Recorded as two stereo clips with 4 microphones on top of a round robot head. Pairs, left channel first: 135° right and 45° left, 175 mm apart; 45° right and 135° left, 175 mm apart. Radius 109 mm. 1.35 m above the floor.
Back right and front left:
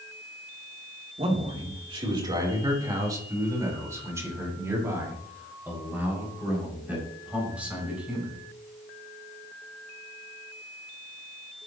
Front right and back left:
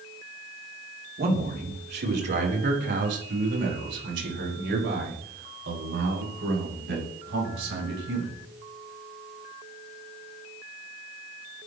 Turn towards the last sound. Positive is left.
turn(degrees=130)